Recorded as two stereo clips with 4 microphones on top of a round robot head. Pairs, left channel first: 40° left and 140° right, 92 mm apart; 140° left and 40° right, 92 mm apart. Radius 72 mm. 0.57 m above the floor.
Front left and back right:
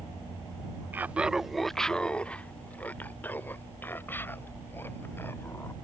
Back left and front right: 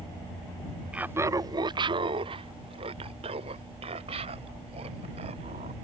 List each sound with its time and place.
0.9 s laughter: 105° right; by 5.7 s 25° right